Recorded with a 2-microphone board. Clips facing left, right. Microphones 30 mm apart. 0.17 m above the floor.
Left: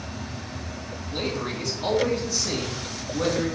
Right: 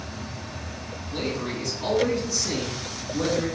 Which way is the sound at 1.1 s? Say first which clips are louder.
Even; 5° right (ahead or behind).